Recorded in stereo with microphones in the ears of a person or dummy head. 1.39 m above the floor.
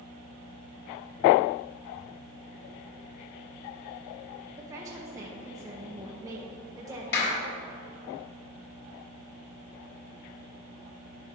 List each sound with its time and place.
4.6 s a woman speaking: 20° right (ahead or behind), 0.8 m
7.1 s a clap: 55° left (ahead or behind), 1.7 m